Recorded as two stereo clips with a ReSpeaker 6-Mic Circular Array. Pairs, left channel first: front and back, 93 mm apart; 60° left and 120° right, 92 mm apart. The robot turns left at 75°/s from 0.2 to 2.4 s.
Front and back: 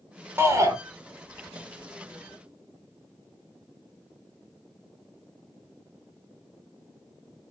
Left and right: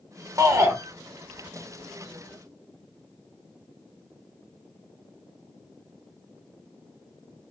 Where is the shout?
135° right, 1.1 m; by 0.8 s 160° right, 1.1 m.